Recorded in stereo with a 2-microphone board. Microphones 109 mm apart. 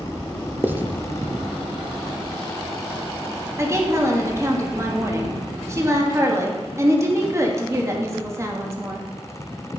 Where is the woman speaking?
25° right (ahead or behind), 1.2 m.